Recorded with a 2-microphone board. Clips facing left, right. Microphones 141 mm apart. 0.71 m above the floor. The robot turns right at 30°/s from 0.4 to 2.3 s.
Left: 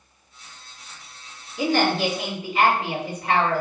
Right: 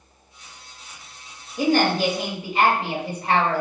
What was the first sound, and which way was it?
A woman speaking, 45° right (ahead or behind).